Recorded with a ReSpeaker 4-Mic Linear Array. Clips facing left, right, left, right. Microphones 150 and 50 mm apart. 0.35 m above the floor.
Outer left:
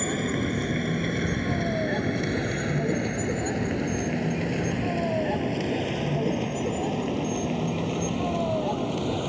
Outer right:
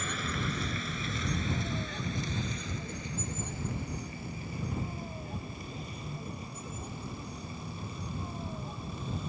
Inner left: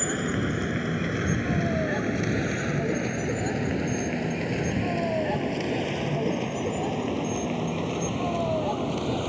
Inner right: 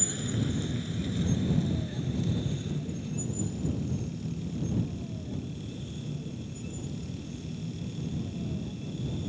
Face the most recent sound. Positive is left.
turn(degrees=80)